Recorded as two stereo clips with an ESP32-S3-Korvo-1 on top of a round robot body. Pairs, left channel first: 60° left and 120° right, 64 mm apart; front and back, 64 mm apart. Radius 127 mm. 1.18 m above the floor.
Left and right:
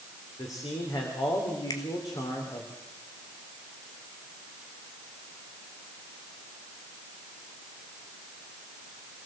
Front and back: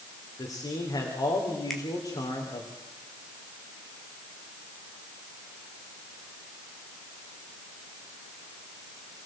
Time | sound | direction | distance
0.4 | a man speaking | 25° left | 3.5 m
1.7 | a finger snap | 85° left | 2.5 m